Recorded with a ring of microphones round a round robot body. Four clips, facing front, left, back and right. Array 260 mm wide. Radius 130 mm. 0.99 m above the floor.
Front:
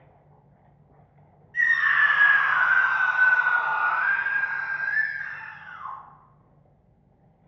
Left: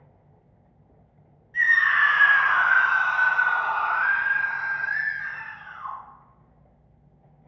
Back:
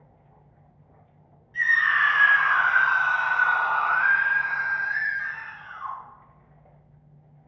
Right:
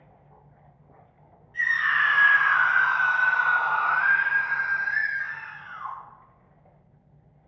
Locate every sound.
1.5 s a scream: 80° left, 1.3 m; by 6.0 s 120° right, 1.7 m